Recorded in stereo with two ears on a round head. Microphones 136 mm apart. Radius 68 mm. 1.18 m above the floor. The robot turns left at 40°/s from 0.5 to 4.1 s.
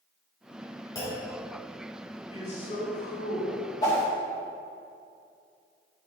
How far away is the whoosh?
About 1.8 m.